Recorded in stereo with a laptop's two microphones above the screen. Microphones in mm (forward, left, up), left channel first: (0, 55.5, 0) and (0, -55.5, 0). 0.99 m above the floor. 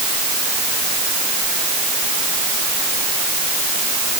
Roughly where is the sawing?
No sawing in this recording.